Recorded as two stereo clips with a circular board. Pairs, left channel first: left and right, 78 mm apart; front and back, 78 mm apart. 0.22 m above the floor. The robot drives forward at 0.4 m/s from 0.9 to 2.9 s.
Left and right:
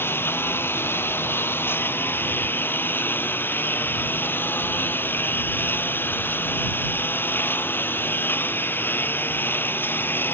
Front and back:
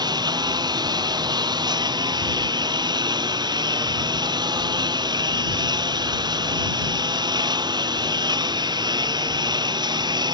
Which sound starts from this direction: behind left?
A lawn mower, at 0.0 s.